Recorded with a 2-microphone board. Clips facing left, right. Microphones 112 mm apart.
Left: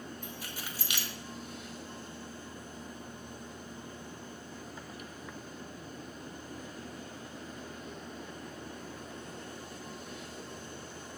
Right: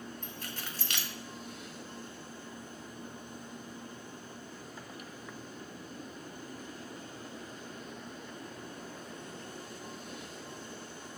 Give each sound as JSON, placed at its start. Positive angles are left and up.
{"t": 0.2, "sound": "keys jangling", "side_deg": 10, "distance_m": 0.6}